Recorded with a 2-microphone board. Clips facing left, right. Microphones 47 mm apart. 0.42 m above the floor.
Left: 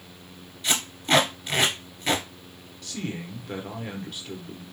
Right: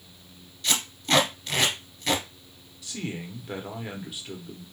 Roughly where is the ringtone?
I don't hear a ringtone.